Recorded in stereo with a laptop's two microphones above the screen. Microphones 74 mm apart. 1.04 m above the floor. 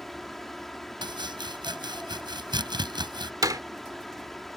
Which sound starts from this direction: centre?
A fan, at 0.0 s.